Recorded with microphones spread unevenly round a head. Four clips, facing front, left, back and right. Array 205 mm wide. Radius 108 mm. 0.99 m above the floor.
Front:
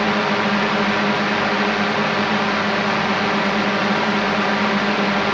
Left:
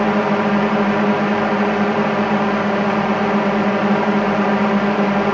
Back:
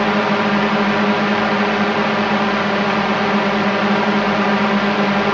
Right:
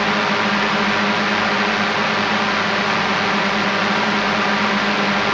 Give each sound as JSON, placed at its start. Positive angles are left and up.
{"t": 0.0, "sound": "a drone", "azimuth_deg": 120}